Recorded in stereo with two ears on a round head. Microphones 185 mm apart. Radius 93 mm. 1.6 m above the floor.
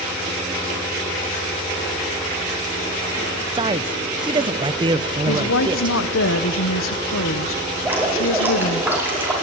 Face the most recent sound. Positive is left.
turn(degrees=-10)  # may be behind; listen again after turning